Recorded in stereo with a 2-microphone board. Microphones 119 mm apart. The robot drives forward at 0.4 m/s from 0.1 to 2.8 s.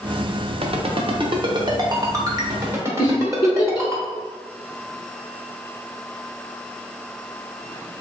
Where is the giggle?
35° left (ahead or behind), 1.1 m.